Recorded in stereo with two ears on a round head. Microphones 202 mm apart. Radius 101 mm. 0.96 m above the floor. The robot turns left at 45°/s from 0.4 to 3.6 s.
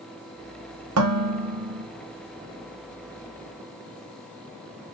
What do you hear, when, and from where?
1.0 s dishes clattering: 75° right, 1.1 m; by 1.9 s 115° right, 1.1 m